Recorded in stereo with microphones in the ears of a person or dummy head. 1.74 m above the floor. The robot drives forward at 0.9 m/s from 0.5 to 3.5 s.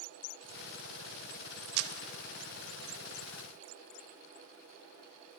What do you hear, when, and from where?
1.8 s a camera shutter: 50° right (ahead or behind), 0.6 m; by 1.9 s 65° right (ahead or behind), 0.5 m